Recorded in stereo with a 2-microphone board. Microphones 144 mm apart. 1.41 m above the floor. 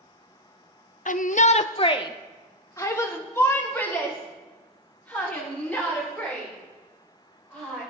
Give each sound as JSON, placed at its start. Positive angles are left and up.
{"t": 1.1, "sound": "a shout", "side_deg": 65, "distance_m": 0.5}